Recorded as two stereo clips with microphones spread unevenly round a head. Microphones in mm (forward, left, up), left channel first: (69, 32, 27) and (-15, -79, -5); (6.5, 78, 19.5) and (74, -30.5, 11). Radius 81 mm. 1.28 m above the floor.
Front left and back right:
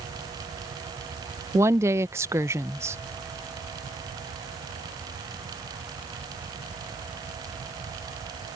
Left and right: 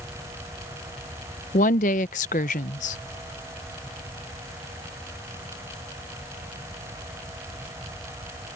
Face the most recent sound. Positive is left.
turn(degrees=160)